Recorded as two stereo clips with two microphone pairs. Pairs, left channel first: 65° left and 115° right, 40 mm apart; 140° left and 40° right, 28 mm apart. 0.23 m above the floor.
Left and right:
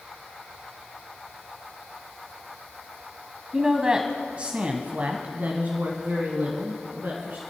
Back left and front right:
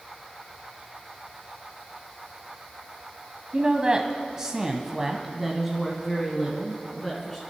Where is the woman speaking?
55° right, 1.2 m; by 7.4 s 140° right, 2 m.